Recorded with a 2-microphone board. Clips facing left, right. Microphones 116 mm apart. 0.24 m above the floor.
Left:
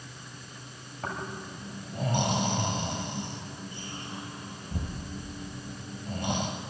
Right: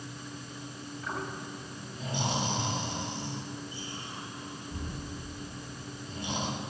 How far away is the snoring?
About 6.5 m.